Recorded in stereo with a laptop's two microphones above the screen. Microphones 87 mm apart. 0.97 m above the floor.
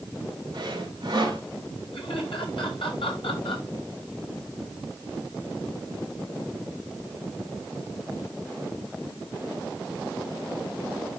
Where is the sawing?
45° right (ahead or behind), 3 m.